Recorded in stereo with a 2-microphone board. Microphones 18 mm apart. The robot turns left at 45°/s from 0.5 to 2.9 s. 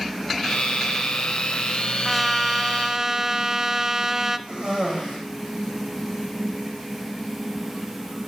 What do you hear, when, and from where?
2.0 s a trumpet: 10° right, 1.0 m; by 4.4 s 45° right, 1.0 m
4.5 s a cough: 55° right (ahead or behind), 8 m